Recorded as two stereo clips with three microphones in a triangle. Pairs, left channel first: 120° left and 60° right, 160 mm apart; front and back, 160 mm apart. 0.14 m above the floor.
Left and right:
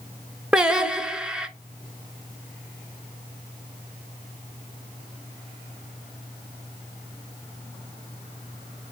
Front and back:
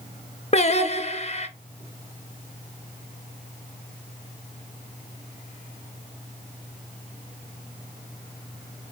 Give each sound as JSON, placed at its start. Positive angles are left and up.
{"t": 0.5, "sound": "singing", "azimuth_deg": 25, "distance_m": 0.6}